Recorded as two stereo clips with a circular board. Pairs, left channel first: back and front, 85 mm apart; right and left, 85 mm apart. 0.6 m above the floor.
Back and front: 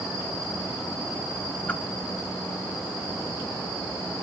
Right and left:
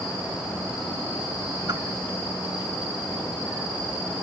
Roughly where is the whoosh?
Left.